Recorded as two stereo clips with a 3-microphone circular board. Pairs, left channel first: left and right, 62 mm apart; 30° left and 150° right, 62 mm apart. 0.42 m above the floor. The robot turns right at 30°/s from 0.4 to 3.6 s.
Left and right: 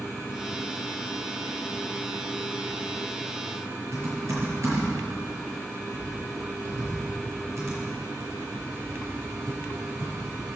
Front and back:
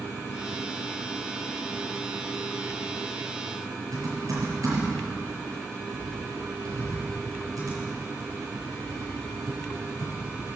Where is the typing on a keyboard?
130° right, 7 m.